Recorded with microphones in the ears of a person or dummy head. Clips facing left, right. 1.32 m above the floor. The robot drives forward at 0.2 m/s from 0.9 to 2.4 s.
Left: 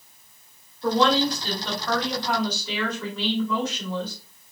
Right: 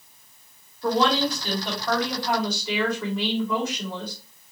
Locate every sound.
0.8 s a woman speaking: 5° right (ahead or behind), 1.3 m